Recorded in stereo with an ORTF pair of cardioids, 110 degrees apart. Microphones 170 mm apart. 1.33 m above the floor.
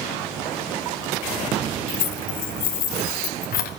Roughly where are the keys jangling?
Ahead left.